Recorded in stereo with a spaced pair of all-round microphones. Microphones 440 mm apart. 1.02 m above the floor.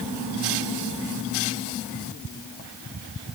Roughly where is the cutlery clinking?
No cutlery clinking in this recording.